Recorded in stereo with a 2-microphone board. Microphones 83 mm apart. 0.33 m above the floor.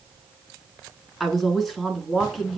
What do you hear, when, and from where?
1.2 s a woman speaking: centre (ahead or behind), 4 m